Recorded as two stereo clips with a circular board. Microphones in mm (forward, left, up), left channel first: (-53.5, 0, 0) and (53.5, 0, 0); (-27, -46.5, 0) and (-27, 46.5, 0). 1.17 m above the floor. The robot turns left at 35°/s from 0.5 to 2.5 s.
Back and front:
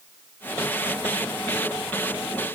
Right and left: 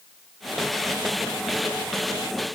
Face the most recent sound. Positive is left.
No sound to turn to.